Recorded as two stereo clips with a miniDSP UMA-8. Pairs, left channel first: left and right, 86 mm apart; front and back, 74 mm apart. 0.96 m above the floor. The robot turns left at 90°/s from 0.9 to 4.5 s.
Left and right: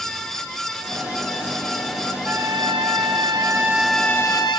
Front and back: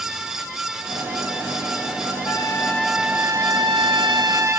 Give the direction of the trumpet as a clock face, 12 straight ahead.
1 o'clock.